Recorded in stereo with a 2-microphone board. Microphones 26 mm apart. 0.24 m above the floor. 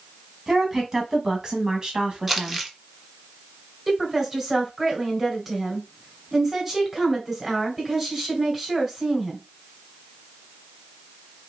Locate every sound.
0.5 s a woman speaking: 15° right (ahead or behind), 2 m; by 2.6 s 35° right (ahead or behind), 1.7 m
2.3 s crumpling: 10° right (ahead or behind), 1.2 m
3.9 s a woman speaking: 15° right (ahead or behind), 2.5 m